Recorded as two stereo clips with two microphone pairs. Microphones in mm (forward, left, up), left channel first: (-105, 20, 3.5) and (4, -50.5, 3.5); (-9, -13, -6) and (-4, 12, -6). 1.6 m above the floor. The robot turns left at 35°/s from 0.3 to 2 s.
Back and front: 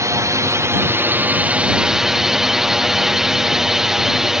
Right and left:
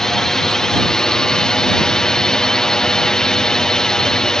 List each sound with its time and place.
0.0 s a drone: 55° right; by 4.4 s 115° right